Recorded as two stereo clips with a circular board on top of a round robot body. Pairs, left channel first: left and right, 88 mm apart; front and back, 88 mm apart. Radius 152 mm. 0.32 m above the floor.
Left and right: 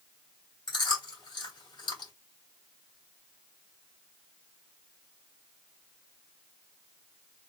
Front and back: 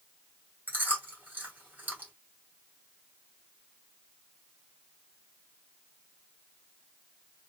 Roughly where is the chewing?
Left.